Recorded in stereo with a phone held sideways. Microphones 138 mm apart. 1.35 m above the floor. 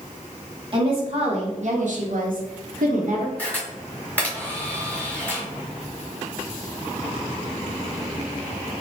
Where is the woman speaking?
40° right (ahead or behind), 1.6 m; by 3.3 s 60° right (ahead or behind), 1.0 m.